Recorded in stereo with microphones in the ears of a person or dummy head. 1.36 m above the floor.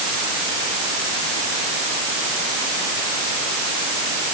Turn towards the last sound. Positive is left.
No sound to turn to.